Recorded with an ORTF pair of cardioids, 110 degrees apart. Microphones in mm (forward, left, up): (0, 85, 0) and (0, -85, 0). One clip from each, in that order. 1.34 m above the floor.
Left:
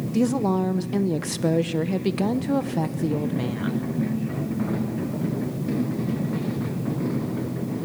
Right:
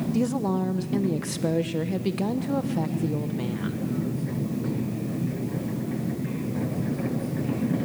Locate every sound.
0.1 s a woman speaking: 20° left, 0.8 m